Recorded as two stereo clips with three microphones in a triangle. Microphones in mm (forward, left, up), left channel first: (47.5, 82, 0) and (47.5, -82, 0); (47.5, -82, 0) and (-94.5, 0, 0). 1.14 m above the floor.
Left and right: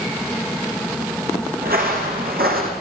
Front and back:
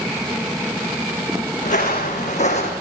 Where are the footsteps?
70° right, 5.5 m; by 2.7 s 75° right, 4 m.